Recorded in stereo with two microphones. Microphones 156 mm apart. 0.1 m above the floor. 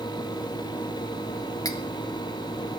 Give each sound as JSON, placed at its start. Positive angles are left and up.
{"t": 1.6, "sound": "cutlery clinking", "side_deg": 25, "distance_m": 1.2}